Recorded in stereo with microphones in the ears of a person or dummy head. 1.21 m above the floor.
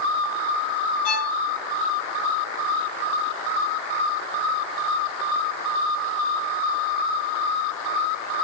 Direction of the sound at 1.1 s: 40° left (ahead or behind).